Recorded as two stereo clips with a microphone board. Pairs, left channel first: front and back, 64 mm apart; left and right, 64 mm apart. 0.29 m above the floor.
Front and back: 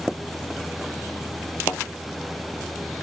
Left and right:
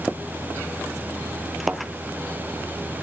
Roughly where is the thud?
Ahead right.